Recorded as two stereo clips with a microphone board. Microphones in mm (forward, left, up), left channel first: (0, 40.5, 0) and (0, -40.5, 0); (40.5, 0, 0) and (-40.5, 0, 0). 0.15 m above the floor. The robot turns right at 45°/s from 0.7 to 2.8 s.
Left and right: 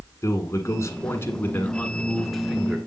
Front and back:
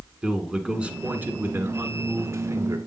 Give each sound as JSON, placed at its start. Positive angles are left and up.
{"t": 0.2, "sound": "a man speaking", "azimuth_deg": 105, "distance_m": 1.7}